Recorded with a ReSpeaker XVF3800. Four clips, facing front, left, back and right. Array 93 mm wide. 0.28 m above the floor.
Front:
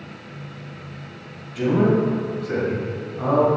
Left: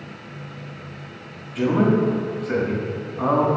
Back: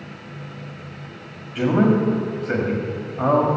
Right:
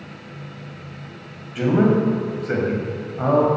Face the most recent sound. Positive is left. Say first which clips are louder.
# right 1 dB, back 1 dB
turn(degrees=-150)